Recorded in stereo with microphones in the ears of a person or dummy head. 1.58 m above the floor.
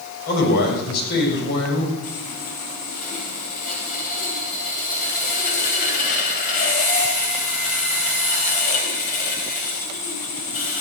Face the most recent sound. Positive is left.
turn(degrees=45)  # may be behind; listen again after turning